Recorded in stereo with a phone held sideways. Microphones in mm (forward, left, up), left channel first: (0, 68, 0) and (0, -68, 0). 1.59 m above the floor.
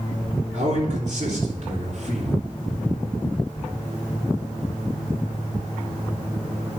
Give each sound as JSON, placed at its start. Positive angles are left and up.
{"t": 0.5, "sound": "a man speaking", "side_deg": -65, "distance_m": 3.5}